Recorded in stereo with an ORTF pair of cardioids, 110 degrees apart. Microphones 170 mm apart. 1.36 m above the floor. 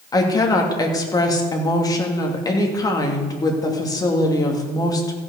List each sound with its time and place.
0.1 s a woman speaking: 20° left, 2.5 m